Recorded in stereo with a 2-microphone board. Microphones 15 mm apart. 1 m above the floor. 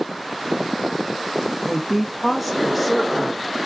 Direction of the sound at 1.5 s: 20° right (ahead or behind).